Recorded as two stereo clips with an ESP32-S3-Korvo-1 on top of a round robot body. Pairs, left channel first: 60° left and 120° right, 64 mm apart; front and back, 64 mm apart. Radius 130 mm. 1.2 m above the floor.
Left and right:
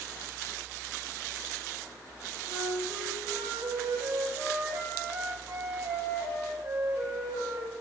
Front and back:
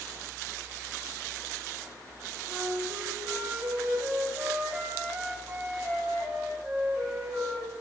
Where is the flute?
110° right, 1.7 m.